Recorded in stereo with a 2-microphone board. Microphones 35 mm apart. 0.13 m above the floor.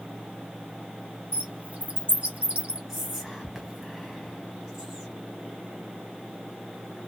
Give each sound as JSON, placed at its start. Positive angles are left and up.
{"t": 1.3, "sound": "a bird", "side_deg": -45, "distance_m": 1.0}
{"t": 2.9, "sound": "whispering", "side_deg": -10, "distance_m": 1.6}